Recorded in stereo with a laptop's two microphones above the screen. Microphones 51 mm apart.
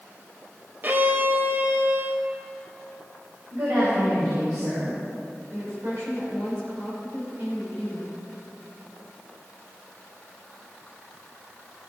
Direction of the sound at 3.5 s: 80° right.